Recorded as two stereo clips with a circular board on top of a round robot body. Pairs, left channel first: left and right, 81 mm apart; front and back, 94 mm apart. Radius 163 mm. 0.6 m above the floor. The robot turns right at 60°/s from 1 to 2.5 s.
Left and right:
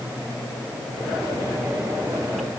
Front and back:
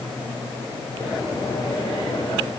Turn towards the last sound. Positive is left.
No sound to turn to.